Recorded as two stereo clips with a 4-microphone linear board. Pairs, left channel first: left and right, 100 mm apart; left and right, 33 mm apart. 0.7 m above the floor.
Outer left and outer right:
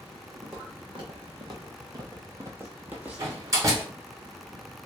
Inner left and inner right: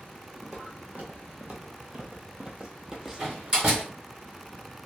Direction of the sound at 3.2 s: 30° right (ahead or behind).